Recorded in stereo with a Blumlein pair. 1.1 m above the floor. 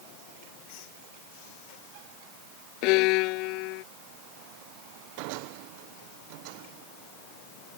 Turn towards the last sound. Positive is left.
turn(degrees=40)